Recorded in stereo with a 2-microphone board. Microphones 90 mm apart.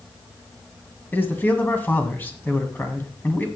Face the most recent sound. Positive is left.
turn(degrees=20)  # may be behind; listen again after turning